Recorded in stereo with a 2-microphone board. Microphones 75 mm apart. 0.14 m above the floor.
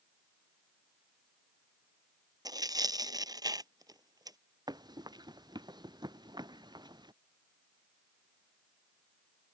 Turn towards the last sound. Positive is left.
turn(degrees=-75)  # may be behind; listen again after turning